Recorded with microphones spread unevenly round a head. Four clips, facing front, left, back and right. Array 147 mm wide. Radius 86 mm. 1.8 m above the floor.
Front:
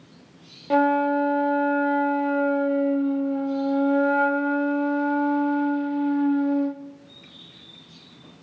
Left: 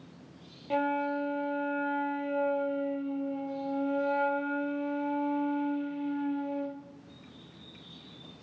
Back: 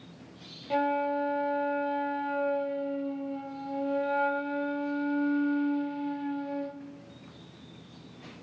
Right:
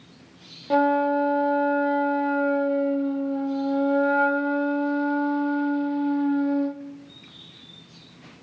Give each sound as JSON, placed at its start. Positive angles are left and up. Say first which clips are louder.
{"t": 0.7, "sound": "a flute", "louder": "right 9 dB, front 8 dB", "azimuth_deg": -35, "distance_m": 0.6}